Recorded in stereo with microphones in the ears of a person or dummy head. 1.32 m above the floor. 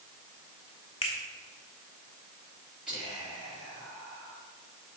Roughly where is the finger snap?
Left.